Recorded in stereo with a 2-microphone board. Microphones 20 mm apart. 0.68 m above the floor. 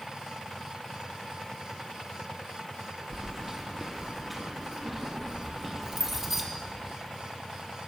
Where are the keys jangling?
15° right (ahead or behind), 0.8 m.